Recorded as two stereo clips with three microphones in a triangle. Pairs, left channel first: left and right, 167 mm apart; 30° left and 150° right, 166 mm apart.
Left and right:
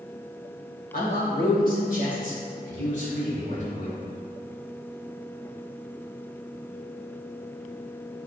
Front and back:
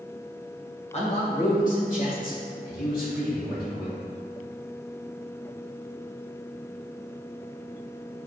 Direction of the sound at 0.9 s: 70° left.